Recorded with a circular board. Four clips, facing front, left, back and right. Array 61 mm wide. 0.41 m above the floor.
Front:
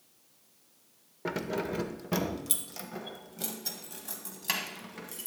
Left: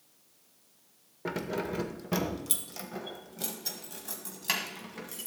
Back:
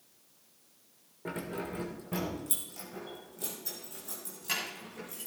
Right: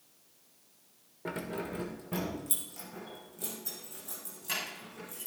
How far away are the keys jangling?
About 0.8 m.